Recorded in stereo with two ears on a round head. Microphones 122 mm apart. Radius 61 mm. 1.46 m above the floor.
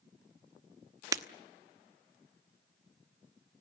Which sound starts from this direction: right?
Breaking glass, at 1.1 s.